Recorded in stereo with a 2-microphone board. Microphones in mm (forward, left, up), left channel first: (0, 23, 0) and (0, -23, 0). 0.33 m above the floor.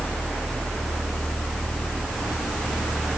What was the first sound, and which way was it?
Only background noise.